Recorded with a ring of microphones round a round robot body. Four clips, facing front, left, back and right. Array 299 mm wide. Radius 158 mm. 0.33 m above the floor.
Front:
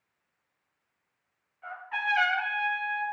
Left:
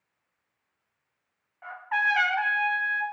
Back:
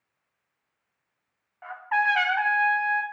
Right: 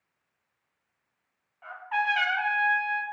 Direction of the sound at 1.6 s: 165° left.